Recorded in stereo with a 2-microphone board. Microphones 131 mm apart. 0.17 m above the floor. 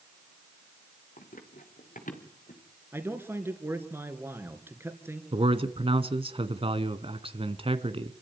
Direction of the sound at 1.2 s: 85° left.